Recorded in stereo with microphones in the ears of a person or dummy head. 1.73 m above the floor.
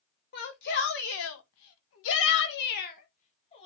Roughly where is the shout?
Left.